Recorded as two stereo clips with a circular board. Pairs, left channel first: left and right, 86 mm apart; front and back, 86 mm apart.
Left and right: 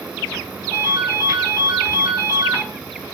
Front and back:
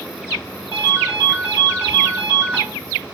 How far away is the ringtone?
About 1.4 m.